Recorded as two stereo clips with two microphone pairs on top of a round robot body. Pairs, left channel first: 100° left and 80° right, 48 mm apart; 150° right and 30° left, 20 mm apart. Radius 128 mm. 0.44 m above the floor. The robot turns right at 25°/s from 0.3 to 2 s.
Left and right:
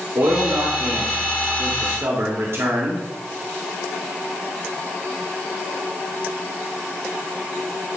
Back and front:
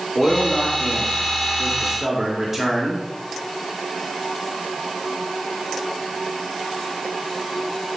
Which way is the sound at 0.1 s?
100° right.